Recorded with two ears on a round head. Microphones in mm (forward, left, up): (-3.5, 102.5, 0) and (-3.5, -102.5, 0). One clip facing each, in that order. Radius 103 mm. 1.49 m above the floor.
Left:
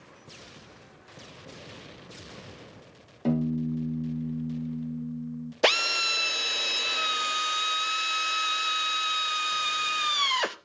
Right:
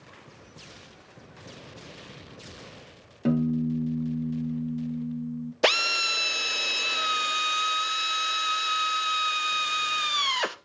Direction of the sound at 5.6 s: Centre (ahead or behind).